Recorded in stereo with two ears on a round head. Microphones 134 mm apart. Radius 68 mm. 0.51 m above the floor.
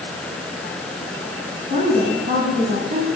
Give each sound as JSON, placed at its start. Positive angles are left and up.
{"t": 1.7, "sound": "a woman speaking", "side_deg": -40, "distance_m": 4.0}